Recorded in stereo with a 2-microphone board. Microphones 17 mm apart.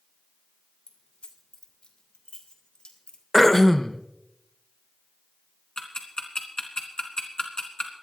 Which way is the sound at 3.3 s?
20° left (ahead or behind).